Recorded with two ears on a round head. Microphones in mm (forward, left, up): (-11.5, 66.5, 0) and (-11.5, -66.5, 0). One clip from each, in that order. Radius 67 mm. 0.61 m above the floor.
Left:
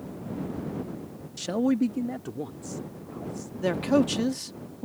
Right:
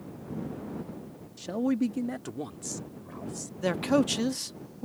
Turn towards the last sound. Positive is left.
turn(degrees=-25)  # may be behind; listen again after turning